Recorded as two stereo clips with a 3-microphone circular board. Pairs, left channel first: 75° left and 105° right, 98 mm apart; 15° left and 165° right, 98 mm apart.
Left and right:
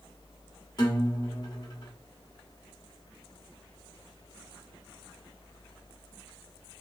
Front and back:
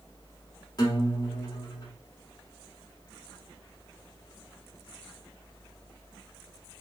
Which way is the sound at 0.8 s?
50° left.